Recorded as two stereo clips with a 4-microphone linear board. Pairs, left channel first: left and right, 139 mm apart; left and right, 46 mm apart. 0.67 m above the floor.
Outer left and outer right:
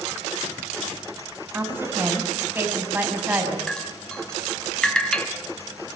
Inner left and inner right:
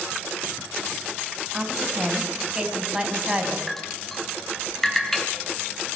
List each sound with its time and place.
1.5 s a woman speaking: 15° right (ahead or behind), 4.5 m
3.7 s dripping: 5° left (ahead or behind), 2.5 m